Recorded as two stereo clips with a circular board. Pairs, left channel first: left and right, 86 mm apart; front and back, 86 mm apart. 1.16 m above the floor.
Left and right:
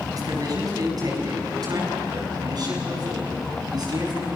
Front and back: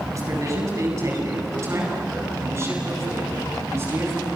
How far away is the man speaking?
About 8 m.